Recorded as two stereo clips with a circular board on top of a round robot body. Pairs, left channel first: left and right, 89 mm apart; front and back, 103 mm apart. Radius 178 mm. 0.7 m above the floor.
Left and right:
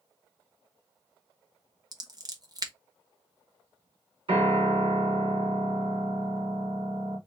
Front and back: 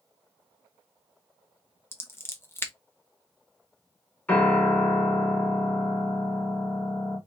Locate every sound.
1.9 s scissors: 60° right, 1.3 m
4.3 s a piano: 75° right, 2.5 m